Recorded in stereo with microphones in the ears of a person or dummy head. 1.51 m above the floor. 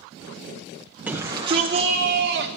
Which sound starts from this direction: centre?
A shout, at 1.1 s.